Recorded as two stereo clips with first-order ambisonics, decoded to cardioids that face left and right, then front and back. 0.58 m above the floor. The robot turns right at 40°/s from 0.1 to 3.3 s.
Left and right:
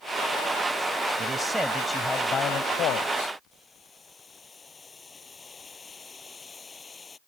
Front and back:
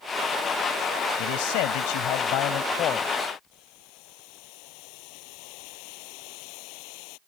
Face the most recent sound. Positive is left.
turn(degrees=15)